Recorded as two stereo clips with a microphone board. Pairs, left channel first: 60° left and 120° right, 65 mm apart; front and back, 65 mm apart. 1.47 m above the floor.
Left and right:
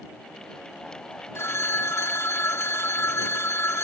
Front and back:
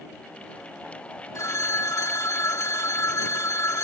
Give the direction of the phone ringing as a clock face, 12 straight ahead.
11 o'clock.